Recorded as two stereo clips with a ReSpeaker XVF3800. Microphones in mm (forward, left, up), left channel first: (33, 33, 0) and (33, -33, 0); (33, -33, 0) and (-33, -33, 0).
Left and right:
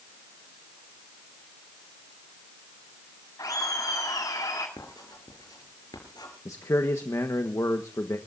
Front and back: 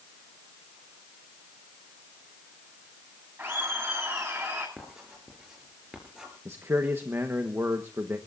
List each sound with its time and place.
3.4 s laughter: 115° left, 8 m
4.8 s writing: 100° left, 5.5 m
6.5 s a man speaking: 130° left, 1.2 m